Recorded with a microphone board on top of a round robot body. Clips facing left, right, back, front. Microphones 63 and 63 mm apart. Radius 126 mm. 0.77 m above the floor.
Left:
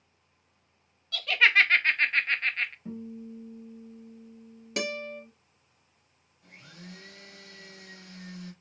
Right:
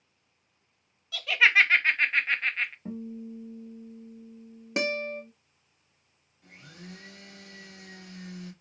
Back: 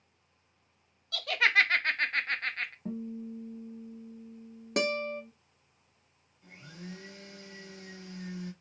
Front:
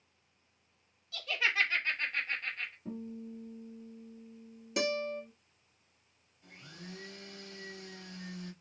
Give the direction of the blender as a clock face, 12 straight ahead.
4 o'clock.